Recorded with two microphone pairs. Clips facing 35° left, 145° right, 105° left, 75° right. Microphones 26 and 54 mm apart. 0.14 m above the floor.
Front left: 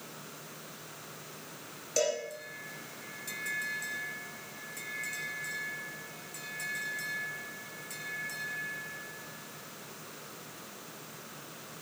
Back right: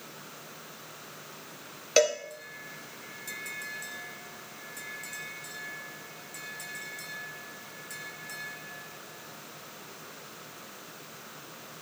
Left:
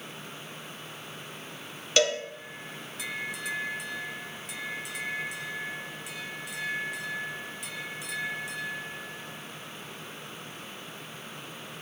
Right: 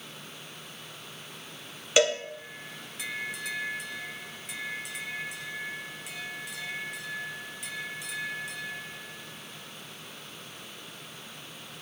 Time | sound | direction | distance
2.0 | a cowbell | 145° right | 1.4 m